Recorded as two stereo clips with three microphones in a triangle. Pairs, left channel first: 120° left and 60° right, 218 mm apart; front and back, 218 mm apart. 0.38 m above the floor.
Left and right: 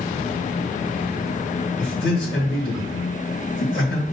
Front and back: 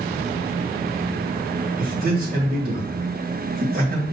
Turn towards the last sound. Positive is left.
turn(degrees=140)